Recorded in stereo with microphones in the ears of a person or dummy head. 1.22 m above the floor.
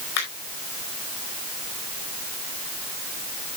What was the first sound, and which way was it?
A finger snap, 80° left.